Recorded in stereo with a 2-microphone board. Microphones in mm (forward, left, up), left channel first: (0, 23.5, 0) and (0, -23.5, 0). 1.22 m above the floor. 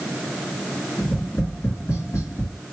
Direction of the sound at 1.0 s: 75° left (ahead or behind).